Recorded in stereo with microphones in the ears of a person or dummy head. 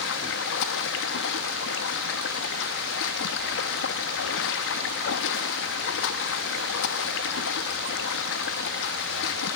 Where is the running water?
65° left (ahead or behind), 0.9 m.